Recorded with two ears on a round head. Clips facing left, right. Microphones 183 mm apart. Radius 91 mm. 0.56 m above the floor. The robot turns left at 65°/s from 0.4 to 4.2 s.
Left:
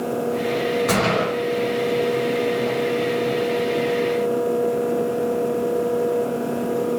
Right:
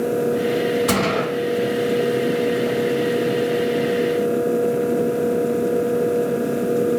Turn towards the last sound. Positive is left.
turn(degrees=10)